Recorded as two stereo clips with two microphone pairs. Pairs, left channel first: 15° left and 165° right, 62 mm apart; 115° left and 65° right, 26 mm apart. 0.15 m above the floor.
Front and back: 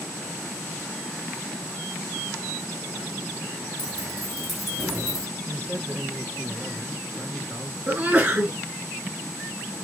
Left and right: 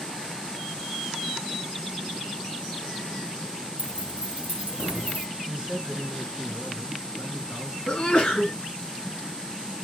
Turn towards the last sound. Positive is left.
turn(degrees=145)